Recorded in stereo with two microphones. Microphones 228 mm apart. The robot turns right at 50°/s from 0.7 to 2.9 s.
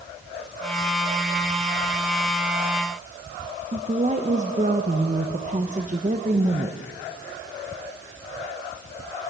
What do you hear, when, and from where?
3.7 s a woman speaking: 35° right (ahead or behind), 1.1 m